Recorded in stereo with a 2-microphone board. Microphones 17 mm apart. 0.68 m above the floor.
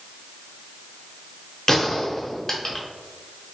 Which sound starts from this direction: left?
A gunshot, at 1.7 s.